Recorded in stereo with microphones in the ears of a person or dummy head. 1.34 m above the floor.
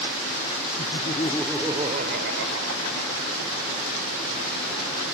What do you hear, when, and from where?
0.8 s laughter: 40° left (ahead or behind); by 3.7 s 75° right (ahead or behind)